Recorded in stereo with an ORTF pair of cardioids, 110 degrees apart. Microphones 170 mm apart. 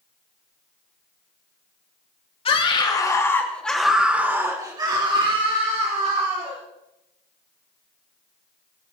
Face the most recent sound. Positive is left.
turn(degrees=-50)